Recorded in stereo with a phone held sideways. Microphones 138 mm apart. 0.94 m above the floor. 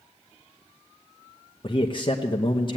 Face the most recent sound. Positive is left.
turn(degrees=40)  # may be behind; listen again after turning